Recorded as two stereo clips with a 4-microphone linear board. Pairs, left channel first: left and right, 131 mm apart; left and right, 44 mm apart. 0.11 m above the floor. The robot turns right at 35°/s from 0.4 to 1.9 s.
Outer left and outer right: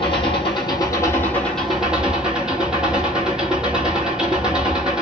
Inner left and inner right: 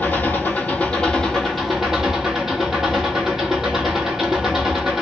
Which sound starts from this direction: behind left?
An engine running, at 0.0 s.